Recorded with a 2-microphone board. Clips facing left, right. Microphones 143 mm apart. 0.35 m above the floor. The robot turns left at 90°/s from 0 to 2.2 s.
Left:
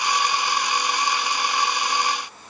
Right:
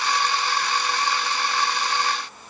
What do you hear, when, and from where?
Only background noise.